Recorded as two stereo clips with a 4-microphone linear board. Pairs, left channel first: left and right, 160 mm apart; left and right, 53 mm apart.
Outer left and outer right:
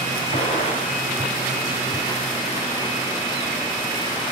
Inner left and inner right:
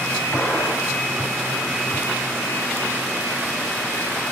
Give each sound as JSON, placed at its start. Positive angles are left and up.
{"t": 0.3, "sound": "a gunshot", "side_deg": 50, "distance_m": 3.0}